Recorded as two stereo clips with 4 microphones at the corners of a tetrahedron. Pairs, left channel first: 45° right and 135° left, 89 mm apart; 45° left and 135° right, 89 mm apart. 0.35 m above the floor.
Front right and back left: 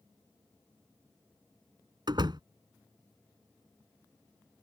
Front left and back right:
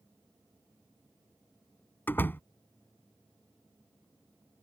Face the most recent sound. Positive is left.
turn(degrees=110)